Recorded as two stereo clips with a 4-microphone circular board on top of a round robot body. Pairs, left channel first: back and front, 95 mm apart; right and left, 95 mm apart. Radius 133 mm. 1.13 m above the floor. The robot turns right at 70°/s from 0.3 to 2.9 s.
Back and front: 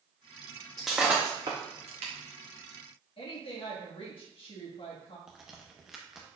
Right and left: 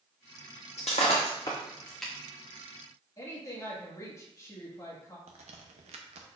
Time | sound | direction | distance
0.8 | breaking glass | 95° right | 0.5 m
3.2 | a woman speaking | 150° right | 1.9 m
5.3 | a crack | 85° left | 0.7 m